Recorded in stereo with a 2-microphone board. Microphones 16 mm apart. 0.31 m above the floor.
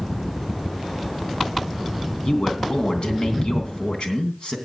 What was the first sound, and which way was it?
A man speaking, 60° left (ahead or behind).